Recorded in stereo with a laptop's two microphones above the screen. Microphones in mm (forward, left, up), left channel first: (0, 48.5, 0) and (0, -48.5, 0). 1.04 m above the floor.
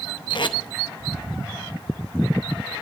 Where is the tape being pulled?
55° left (ahead or behind), 0.6 m.